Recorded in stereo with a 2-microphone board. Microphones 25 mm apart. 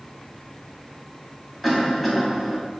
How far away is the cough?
About 2.5 m.